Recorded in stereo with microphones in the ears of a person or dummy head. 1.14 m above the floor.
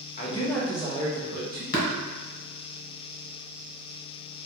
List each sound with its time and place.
0.2 s a man speaking: 35° left (ahead or behind), 0.6 m; by 1.6 s 60° right (ahead or behind), 1.1 m
1.7 s tapping: 45° left (ahead or behind), 0.9 m